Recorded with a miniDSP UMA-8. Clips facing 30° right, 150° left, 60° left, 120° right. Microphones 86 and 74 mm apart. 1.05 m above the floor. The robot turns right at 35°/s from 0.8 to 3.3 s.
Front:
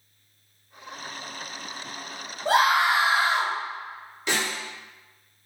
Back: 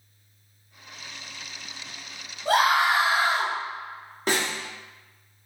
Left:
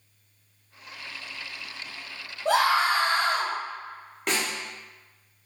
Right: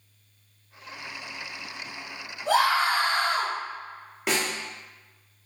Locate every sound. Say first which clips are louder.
2.5 s a scream: even, even; 30° left, 1.3 m; by 3.5 s 60° left, 1.3 m
4.3 s a snare drum: back 2 dB, right 1 dB; 155° left, 0.6 m